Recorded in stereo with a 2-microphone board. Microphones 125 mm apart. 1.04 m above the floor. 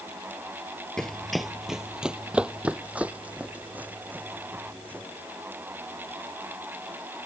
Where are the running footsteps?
5° left (ahead or behind); by 5.0 s 15° right (ahead or behind).